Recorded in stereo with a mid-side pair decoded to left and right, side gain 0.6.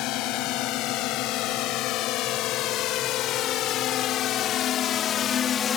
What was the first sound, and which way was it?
A drone, 70° left.